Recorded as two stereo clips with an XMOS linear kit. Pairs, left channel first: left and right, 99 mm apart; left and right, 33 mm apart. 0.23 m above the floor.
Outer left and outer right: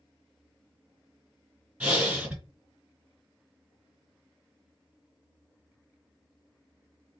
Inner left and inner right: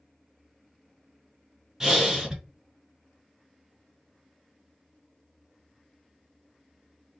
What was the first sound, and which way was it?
Breathing, 15° right (ahead or behind).